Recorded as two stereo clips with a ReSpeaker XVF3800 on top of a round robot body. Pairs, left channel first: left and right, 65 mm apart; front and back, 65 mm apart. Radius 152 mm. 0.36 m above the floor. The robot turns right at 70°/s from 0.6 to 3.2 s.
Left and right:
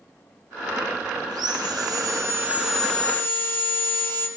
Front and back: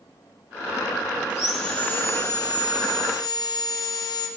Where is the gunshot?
I don't hear a gunshot.